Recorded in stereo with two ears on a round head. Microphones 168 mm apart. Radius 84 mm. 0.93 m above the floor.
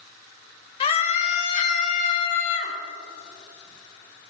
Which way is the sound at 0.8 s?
30° left (ahead or behind).